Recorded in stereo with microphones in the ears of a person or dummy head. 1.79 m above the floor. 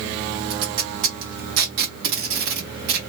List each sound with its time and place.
0.5 s tape being pulled: 60° right (ahead or behind), 1.0 m